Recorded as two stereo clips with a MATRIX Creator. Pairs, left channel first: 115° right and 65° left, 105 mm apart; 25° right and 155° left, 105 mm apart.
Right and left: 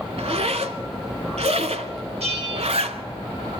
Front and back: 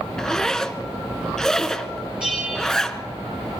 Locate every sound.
0.2 s a zipper: 60° left, 0.7 m
2.2 s a bell: 75° left, 3 m